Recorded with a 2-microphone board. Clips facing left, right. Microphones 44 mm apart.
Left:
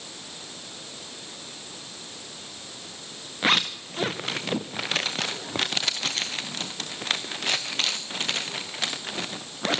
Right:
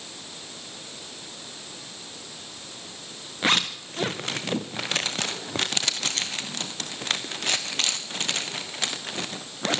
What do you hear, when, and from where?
3.4 s a zipper: 5° left (ahead or behind), 1.6 m